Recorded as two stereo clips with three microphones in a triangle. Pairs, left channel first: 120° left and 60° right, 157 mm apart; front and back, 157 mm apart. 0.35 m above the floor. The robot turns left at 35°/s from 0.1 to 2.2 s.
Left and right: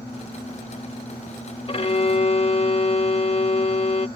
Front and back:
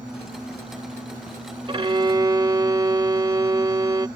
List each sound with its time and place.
1.7 s a violin: 145° left; by 4.1 s 130° left